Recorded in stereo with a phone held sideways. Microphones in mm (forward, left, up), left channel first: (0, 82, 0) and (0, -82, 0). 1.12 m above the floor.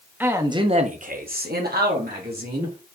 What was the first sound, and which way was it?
A man speaking, 10° right (ahead or behind).